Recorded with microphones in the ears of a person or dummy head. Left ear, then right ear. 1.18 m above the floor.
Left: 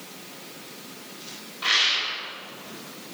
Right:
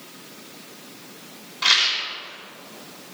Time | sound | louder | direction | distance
1.6 | a rattle | right 3 dB | 75° right (ahead or behind) | 4 m